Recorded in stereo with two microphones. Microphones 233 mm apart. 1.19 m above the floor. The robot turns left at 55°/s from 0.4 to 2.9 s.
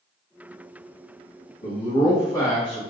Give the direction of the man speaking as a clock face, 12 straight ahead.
10 o'clock.